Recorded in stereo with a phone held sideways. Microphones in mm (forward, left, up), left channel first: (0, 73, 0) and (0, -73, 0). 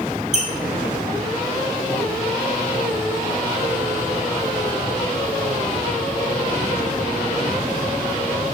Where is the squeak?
50° right (ahead or behind), 0.6 m.